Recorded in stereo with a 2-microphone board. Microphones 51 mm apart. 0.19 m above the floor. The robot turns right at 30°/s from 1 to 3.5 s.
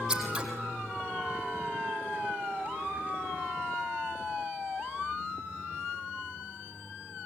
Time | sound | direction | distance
0.1 | scissors | 15° right (ahead or behind) | 5 m